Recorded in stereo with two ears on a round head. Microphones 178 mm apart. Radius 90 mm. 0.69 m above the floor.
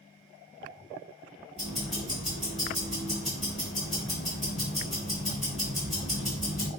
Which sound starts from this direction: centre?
Ticking, at 1.6 s.